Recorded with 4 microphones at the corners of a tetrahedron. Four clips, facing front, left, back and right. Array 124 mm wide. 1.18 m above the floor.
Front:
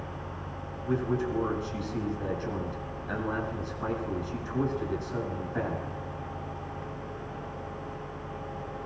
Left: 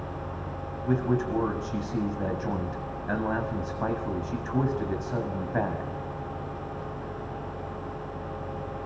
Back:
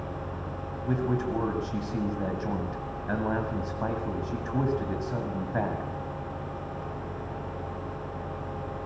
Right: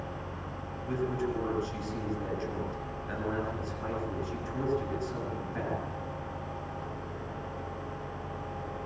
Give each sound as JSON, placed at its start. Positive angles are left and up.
{"t": 0.9, "sound": "a man speaking", "azimuth_deg": 125, "distance_m": 6.5}